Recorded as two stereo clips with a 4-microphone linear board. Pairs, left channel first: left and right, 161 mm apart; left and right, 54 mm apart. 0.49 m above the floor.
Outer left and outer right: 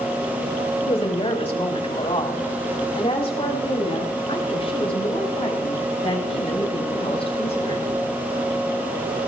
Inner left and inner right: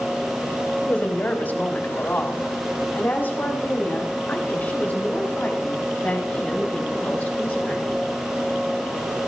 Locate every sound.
0.8 s a woman speaking: 35° left (ahead or behind), 2 m